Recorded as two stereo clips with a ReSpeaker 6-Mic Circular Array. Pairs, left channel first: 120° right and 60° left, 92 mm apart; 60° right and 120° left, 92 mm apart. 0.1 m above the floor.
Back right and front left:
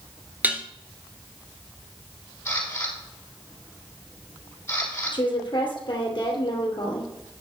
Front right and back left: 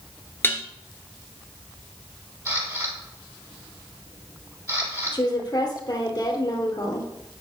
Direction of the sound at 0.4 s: 5° right.